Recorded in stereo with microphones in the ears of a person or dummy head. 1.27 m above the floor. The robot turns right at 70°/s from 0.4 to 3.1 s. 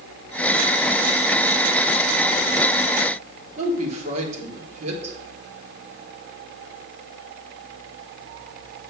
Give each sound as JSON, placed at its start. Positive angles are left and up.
{"t": 3.6, "sound": "a woman speaking", "side_deg": -40, "distance_m": 3.0}